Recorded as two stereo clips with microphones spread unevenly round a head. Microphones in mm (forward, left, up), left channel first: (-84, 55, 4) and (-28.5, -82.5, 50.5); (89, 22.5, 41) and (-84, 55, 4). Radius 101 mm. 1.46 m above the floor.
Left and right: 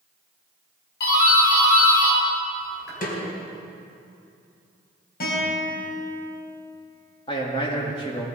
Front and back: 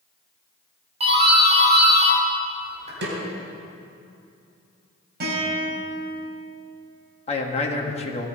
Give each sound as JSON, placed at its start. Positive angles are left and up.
{"t": 1.0, "sound": "a doorbell", "azimuth_deg": 115, "distance_m": 5.0}
{"t": 3.0, "sound": "a snare drum", "azimuth_deg": 145, "distance_m": 4.5}
{"t": 5.2, "sound": "a guitar", "azimuth_deg": 135, "distance_m": 6.0}
{"t": 7.3, "sound": "a man speaking", "azimuth_deg": 45, "distance_m": 2.0}